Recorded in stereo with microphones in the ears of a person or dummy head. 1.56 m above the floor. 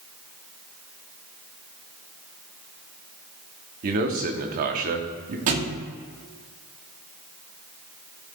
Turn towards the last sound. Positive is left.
turn(degrees=-45)  # may be behind; listen again after turning